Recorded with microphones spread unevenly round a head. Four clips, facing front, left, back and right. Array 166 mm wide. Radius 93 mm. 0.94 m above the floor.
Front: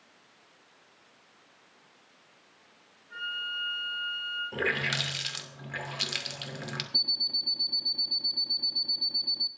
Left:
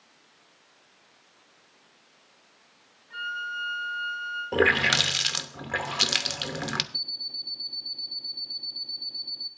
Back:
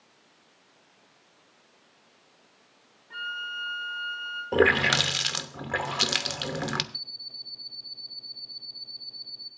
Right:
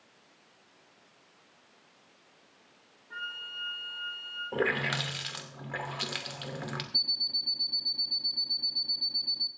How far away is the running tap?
About 0.7 m.